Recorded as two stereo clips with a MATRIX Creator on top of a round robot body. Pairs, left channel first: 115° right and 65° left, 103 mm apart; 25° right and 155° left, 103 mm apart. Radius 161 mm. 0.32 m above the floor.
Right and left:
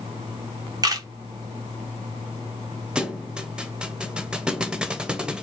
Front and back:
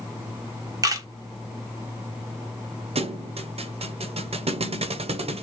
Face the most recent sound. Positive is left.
turn(degrees=150)